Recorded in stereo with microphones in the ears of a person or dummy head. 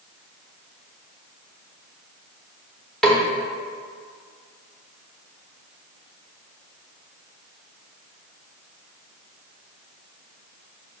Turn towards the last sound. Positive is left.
turn(degrees=0)  # may be behind; listen again after turning